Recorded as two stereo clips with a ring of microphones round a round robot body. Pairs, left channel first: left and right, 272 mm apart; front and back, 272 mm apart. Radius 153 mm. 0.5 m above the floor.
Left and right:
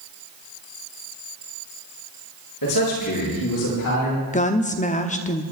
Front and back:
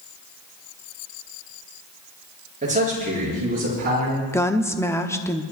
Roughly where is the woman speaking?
Left.